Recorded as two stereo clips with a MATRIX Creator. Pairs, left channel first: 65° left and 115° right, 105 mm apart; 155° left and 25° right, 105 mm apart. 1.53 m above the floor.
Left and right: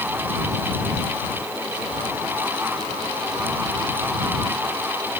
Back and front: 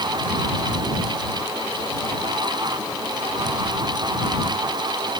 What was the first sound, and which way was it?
Only background noise.